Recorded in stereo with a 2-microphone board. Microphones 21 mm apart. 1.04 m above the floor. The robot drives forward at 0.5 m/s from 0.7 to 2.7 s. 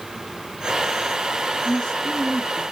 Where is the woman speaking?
40° left (ahead or behind), 0.9 m; by 2.6 s 25° left (ahead or behind), 1.3 m.